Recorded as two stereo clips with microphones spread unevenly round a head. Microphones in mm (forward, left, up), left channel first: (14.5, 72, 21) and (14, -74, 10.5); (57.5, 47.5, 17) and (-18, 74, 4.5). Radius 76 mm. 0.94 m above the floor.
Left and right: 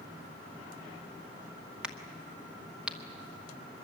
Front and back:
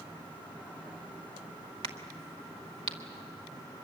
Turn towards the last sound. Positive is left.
turn(degrees=-175)